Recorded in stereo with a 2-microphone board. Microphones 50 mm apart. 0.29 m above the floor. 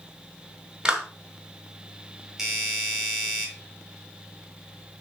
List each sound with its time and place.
0.8 s a clap: 15° right (ahead or behind), 1.4 m
2.4 s a doorbell: 5° right (ahead or behind), 1.6 m